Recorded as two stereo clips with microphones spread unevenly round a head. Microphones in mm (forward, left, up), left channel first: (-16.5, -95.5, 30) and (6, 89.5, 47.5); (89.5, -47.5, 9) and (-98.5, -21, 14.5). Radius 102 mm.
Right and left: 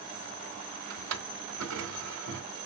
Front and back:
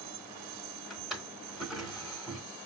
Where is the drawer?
85° left, 1.6 m.